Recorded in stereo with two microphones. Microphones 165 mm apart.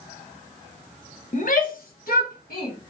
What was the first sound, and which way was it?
A shout, 50° left (ahead or behind).